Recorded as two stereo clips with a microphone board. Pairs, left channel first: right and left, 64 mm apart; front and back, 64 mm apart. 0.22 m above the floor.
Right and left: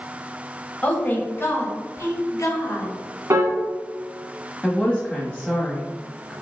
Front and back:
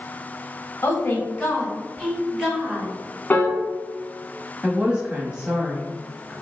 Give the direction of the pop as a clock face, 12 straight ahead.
I don't hear a pop.